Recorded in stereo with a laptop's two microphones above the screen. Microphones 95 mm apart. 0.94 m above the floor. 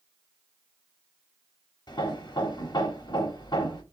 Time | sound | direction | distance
1.9 | hammering | 55° left (ahead or behind) | 0.9 m